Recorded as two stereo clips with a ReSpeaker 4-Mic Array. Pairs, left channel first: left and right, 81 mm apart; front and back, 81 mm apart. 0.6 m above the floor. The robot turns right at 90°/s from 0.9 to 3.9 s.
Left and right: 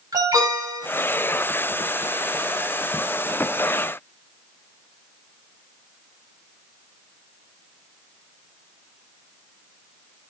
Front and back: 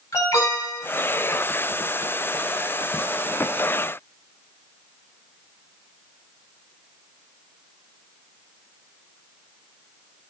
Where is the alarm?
50° right, 6.5 m.